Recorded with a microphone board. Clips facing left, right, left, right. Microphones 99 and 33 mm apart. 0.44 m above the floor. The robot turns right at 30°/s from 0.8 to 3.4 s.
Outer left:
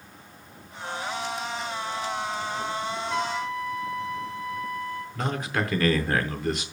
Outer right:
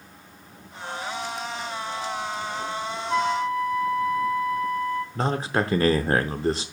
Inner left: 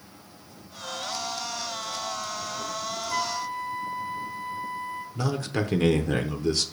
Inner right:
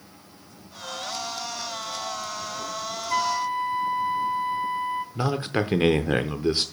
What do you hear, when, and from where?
3.1 s a flute: 40° right (ahead or behind), 0.8 m
5.2 s a man speaking: 30° right (ahead or behind), 0.8 m